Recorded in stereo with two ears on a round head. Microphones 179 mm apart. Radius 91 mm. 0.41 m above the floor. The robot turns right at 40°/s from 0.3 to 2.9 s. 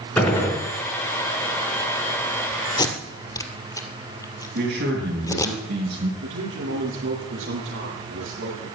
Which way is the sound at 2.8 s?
25° left (ahead or behind).